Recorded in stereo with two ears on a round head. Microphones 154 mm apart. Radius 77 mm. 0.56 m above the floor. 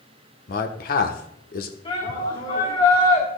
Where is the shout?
30° left (ahead or behind), 4.5 m.